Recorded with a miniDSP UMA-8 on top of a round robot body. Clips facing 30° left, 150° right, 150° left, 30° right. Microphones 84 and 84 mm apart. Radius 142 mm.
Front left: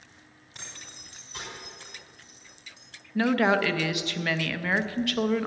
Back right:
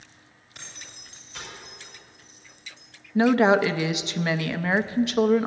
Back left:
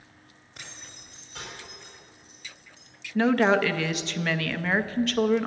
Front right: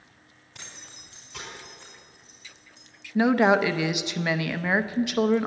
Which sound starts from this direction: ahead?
Keys jangling, at 0.6 s.